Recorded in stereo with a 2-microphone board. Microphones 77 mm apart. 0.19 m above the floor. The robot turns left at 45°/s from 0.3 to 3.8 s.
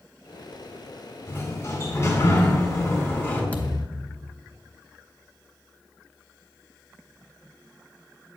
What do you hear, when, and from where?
1.3 s a sliding door: 135° left, 1.9 m; by 3.4 s 35° left, 1.9 m
3.5 s a thud: 20° left (ahead or behind), 0.9 m; by 4.3 s 30° left (ahead or behind), 0.9 m